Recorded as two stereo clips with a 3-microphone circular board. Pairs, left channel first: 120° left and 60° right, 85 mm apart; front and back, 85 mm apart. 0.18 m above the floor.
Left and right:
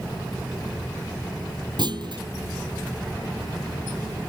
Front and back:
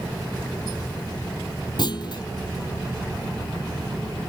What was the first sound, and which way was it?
A clunk, 30° right.